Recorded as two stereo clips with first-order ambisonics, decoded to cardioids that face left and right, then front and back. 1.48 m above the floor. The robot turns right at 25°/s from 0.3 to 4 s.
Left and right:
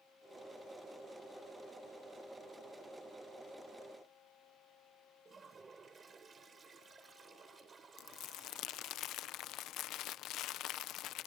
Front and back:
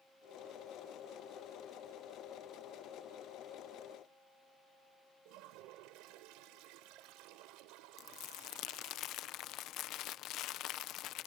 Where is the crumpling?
45° left.